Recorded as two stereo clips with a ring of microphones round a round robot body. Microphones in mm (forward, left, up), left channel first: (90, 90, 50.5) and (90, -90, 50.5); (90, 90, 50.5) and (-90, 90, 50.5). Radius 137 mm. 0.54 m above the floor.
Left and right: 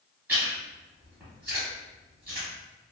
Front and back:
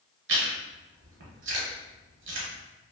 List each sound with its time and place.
0.3 s chewing: 175° right, 0.6 m